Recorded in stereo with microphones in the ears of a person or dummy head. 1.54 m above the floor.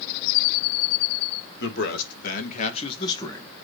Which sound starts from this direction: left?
A man speaking, at 1.6 s.